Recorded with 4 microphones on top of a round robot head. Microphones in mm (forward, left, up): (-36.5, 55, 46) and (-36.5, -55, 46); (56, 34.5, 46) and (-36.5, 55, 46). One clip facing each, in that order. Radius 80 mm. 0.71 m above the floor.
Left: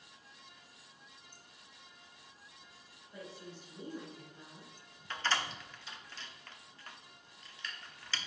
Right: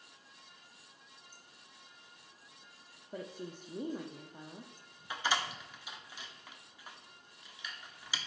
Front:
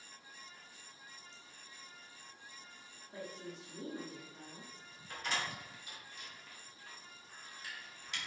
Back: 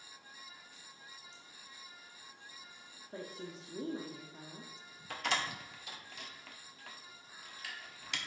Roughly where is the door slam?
Behind.